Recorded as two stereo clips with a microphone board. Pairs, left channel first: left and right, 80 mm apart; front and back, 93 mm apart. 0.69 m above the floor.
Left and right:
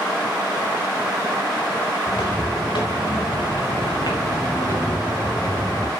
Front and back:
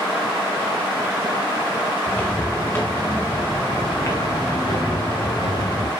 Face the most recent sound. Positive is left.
turn(degrees=30)